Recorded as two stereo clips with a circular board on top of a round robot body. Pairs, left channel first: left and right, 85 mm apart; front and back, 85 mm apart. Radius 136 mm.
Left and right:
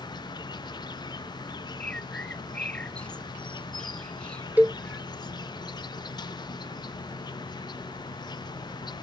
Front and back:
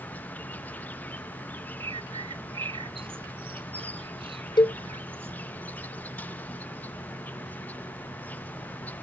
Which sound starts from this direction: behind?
A bird, at 1.8 s.